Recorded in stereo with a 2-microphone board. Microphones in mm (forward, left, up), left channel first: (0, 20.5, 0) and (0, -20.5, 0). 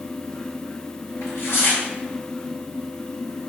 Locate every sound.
1.2 s tearing paper: 75° left (ahead or behind), 1.5 m